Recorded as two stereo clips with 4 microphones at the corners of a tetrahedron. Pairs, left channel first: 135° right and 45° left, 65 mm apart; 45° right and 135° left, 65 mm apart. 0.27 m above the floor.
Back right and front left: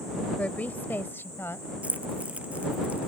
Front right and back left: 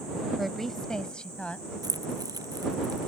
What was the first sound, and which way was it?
A woman speaking, 135° right.